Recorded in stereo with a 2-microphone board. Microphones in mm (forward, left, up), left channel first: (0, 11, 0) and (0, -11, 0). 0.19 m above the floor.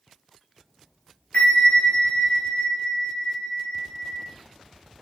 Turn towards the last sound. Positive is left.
turn(degrees=60)  # may be behind; listen again after turning